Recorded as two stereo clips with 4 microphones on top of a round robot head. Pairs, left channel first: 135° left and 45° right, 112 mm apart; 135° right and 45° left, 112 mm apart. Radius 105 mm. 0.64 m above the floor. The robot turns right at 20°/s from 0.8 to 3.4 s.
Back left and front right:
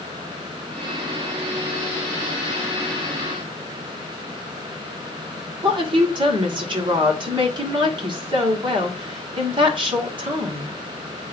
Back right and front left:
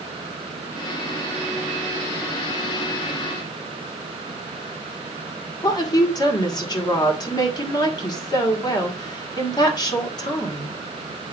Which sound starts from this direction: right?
A woman speaking, at 5.6 s.